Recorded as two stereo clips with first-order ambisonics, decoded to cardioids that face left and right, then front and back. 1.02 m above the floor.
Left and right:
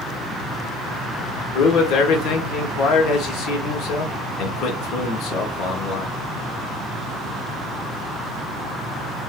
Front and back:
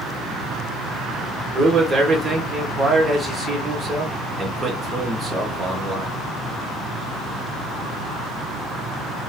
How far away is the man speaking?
About 1.4 m.